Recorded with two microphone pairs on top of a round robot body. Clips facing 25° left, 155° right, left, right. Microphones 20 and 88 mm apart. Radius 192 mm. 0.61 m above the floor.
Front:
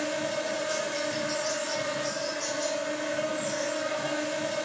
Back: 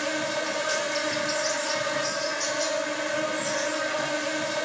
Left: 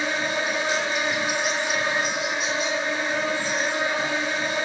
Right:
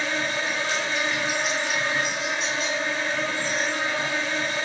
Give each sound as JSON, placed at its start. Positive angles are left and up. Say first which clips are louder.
{"t": 0.0, "sound": "an insect", "louder": "back 2 dB, left 2 dB", "azimuth_deg": 165, "distance_m": 0.9}